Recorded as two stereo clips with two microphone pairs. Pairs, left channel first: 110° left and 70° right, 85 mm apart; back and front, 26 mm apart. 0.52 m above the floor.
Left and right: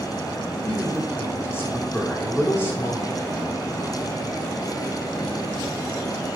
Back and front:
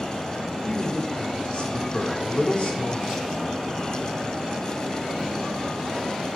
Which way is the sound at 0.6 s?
165° left.